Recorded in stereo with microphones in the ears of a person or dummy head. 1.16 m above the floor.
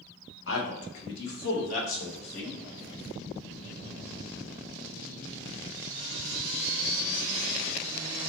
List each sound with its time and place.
0.5 s a man speaking: 65° left (ahead or behind), 1.1 m; by 2.6 s 35° left (ahead or behind), 2 m